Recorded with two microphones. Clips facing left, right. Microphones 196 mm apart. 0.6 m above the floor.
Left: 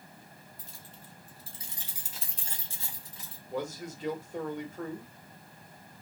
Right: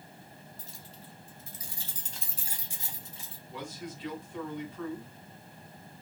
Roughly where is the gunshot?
I don't hear a gunshot.